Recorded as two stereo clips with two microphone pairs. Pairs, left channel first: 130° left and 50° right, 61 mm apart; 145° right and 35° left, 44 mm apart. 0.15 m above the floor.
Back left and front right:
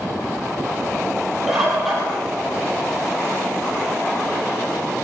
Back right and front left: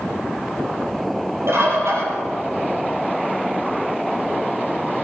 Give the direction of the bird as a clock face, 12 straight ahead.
11 o'clock.